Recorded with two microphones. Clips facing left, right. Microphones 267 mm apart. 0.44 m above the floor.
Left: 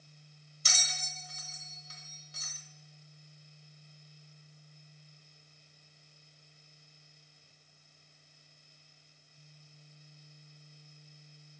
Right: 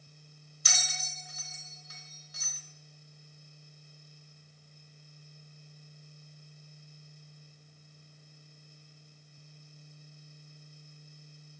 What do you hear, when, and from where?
0.7 s a bell: 30° left (ahead or behind), 0.9 m